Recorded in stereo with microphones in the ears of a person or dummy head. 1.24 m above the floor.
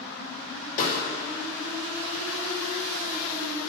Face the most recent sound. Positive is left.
turn(degrees=45)  # may be behind; listen again after turning